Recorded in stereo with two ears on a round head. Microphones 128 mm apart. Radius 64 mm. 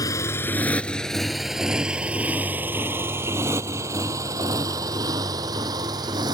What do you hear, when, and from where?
0.0 s a motorcycle: 25° left (ahead or behind); by 6.4 s 30° right (ahead or behind)